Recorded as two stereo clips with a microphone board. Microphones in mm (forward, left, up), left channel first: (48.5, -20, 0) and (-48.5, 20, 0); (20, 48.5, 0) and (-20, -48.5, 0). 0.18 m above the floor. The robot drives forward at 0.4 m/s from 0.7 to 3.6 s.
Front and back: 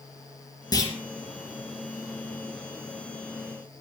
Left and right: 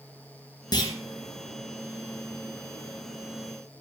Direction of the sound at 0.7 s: 20° left.